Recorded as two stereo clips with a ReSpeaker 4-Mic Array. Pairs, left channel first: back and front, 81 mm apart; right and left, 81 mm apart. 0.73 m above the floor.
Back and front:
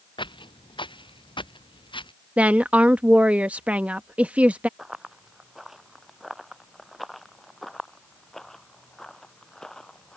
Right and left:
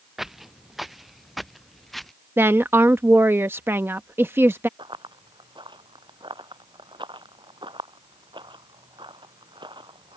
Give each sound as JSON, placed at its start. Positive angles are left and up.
{"t": 0.2, "sound": "footsteps", "azimuth_deg": 175}
{"t": 2.4, "sound": "a woman speaking", "azimuth_deg": 60}
{"t": 4.8, "sound": "running footsteps", "azimuth_deg": 85}